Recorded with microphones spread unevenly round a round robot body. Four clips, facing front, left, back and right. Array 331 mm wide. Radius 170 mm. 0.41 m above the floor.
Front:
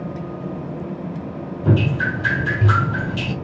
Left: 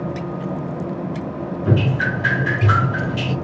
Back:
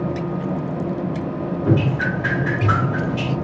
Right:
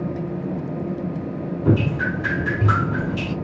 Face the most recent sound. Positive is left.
turn(degrees=-45)